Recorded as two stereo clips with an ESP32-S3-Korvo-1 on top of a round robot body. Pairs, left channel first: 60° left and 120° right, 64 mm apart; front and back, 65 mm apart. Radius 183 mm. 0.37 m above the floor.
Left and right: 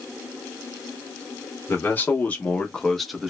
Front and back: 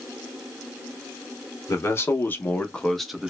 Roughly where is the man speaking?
Ahead.